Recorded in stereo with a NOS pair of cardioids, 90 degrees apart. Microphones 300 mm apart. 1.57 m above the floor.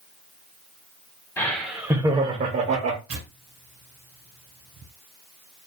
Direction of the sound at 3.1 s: 50° right.